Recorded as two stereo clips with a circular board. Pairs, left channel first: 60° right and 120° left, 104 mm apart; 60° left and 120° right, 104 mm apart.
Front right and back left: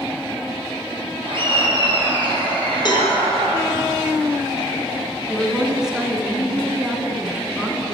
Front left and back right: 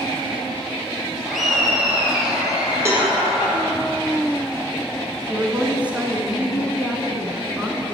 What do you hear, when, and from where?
1.2 s laughter: 150° left, 3.5 m; by 3.6 s 160° left, 5 m
2.9 s a cowbell: 65° right, 2 m
5.3 s a woman speaking: 170° right, 1.3 m